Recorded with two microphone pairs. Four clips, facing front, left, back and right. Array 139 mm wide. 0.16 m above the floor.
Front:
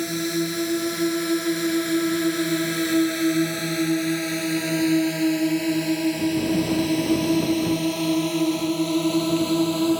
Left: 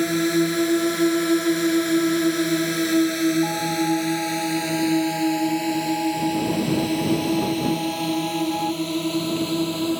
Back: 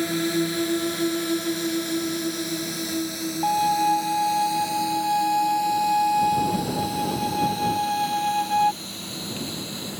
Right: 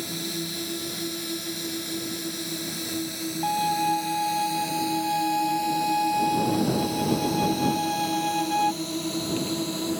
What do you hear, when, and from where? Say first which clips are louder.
0.0 s a drone: left 13 dB, back 1 dB; 100° left; by 10.0 s 15° left
3.4 s a violin: left 1 dB, back 4 dB; 170° right